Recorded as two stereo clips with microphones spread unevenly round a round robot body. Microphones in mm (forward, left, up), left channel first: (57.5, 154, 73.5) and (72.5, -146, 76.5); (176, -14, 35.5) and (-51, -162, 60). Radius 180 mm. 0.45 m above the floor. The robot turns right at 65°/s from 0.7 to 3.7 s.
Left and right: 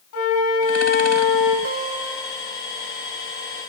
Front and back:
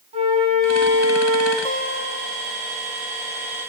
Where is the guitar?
35° right, 1.6 m; by 2.6 s 30° left, 1.6 m.